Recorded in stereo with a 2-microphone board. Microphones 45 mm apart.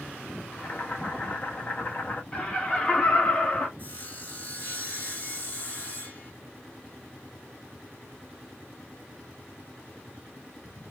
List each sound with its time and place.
0.5 s boiling: 40° left (ahead or behind), 0.7 m
2.3 s laughter: 20° left (ahead or behind), 0.9 m
3.8 s sawing: 40° left (ahead or behind), 1.7 m